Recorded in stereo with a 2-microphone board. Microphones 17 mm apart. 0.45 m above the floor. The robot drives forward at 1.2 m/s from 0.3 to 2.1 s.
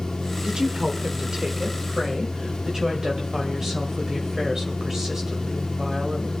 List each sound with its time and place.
0.4 s a woman speaking: 40° right (ahead or behind), 1.5 m; by 6.3 s 30° right (ahead or behind), 2 m